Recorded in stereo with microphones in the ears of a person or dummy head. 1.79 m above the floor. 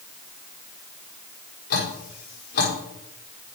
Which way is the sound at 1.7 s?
65° left (ahead or behind).